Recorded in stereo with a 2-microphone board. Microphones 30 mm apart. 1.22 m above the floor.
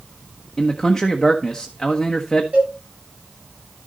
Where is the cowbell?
50° right (ahead or behind), 8.5 m.